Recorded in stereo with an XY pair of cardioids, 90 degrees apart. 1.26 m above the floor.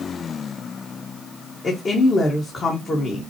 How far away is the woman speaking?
About 1.7 m.